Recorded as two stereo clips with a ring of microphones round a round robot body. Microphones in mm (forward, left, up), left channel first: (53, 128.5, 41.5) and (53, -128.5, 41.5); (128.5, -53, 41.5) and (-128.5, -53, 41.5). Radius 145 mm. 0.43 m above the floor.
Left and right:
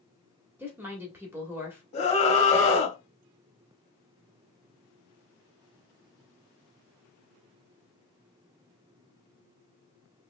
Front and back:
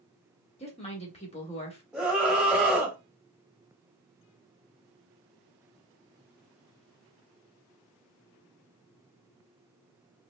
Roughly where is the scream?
Left.